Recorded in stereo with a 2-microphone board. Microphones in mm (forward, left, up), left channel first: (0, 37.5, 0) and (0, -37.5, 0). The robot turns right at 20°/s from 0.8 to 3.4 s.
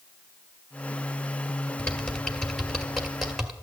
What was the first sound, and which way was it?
Typing on a keyboard, 15° left (ahead or behind).